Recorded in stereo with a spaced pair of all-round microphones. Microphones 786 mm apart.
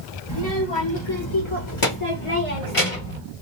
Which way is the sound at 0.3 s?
30° left (ahead or behind).